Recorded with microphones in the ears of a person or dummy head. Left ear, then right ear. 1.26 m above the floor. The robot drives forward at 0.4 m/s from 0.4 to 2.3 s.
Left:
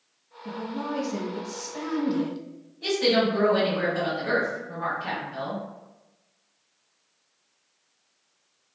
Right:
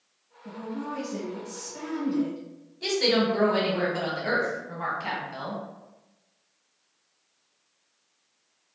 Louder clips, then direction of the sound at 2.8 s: Left 1 dB; 65° right (ahead or behind).